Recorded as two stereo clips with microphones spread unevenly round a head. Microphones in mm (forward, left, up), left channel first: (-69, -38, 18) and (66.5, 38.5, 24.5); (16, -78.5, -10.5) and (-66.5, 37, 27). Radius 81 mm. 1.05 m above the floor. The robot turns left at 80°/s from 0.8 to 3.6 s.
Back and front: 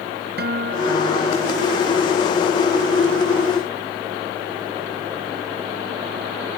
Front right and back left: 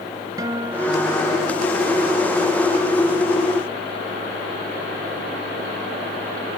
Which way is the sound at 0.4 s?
60° left.